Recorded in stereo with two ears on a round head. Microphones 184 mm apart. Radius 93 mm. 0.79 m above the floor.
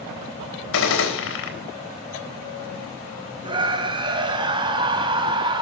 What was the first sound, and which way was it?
A gunshot, 75° left (ahead or behind).